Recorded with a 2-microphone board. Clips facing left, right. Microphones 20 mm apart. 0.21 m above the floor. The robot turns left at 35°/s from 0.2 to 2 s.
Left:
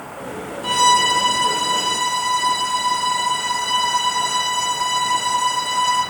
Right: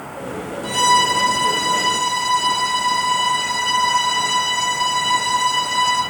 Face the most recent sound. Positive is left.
turn(degrees=-5)